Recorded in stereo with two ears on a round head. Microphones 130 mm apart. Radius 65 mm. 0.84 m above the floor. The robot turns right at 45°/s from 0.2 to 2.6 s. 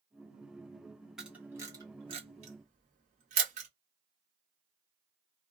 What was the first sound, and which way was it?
A camera shutter, 5° right (ahead or behind).